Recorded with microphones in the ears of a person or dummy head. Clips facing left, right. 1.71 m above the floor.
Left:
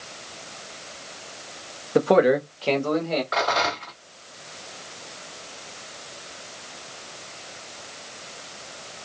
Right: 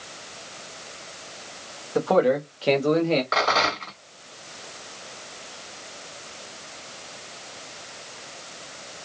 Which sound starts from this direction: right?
A rattle, at 3.3 s.